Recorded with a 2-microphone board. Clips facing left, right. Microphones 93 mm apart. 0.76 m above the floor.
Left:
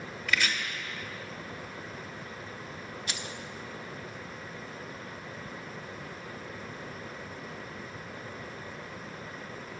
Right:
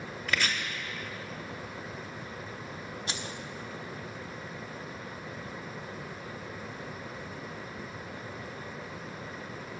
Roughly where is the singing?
No singing in this recording.